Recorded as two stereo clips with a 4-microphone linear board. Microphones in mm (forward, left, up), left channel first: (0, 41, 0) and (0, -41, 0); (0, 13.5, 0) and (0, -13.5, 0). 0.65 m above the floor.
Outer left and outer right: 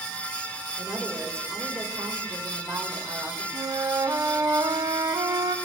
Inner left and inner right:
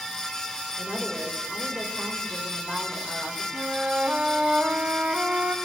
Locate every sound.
0.8 s a woman speaking: 35° right (ahead or behind), 3 m
3.5 s a flute: 45° right (ahead or behind), 0.7 m